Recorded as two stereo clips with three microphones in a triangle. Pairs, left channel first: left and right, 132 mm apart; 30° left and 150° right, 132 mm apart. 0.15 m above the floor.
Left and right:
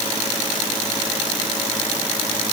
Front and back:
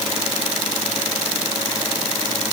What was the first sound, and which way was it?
Only background noise.